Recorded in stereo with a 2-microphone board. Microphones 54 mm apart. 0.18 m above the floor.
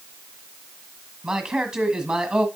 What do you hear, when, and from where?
1.2 s a man speaking: 15° right (ahead or behind), 1.3 m